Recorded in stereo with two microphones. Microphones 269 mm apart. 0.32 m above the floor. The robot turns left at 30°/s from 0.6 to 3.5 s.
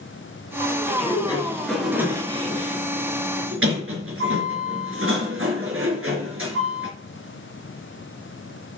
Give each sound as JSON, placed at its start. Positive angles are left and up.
{"t": 0.9, "sound": "a sliding door", "azimuth_deg": 25, "distance_m": 3.5}